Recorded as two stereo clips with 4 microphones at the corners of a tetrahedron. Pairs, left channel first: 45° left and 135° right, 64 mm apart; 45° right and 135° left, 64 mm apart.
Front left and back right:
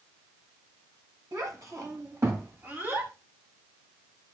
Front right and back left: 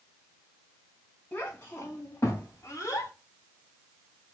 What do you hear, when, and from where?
1.3 s a child speaking: 100° right, 3.5 m; by 3.1 s 80° right, 3.5 m